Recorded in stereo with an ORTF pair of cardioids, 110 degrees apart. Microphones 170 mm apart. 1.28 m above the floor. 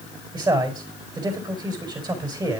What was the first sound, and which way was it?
A man speaking, 25° right.